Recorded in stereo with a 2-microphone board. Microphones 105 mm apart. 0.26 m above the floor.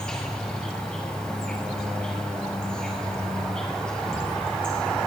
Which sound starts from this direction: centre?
An insect, at 0.0 s.